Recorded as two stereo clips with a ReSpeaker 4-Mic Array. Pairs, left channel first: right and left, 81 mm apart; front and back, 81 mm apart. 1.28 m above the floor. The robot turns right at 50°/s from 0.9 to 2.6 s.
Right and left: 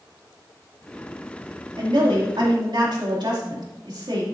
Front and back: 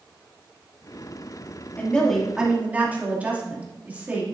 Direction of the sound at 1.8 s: 70° left.